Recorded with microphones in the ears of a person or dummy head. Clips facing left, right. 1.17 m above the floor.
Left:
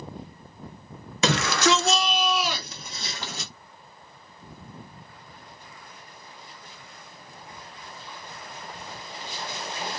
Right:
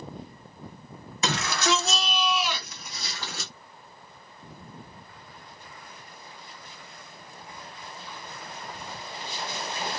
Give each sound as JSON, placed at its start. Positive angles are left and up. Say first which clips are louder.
{"t": 1.2, "sound": "a shout", "louder": "left 5 dB", "side_deg": 50, "distance_m": 0.7}